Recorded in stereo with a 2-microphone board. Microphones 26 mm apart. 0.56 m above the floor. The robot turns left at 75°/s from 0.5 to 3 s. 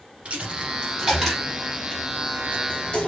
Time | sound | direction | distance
0.2 | a dropped coin | 60° right (ahead or behind) | 2.5 m